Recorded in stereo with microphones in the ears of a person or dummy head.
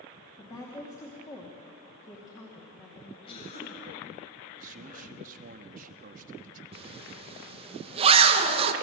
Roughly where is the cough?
Left.